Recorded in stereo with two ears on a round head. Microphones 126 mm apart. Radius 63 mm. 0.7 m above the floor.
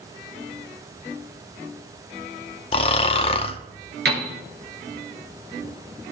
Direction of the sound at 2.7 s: 40° left (ahead or behind).